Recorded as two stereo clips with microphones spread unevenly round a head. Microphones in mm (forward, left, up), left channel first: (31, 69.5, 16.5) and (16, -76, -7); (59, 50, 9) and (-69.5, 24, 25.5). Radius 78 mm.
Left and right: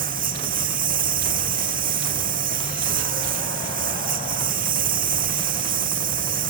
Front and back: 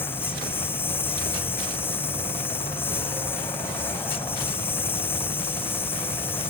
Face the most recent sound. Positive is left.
turn(degrees=-65)